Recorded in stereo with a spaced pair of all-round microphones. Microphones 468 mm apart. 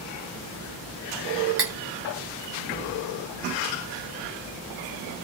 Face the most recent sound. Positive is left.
turn(degrees=-60)  # may be behind; listen again after turning